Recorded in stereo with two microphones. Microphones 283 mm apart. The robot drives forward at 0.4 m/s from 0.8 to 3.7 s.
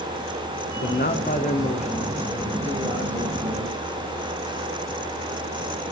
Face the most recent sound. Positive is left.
turn(degrees=15)  # may be behind; listen again after turning